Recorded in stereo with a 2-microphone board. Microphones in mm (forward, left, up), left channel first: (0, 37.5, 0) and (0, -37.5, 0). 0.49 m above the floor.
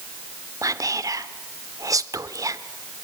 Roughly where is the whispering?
Right.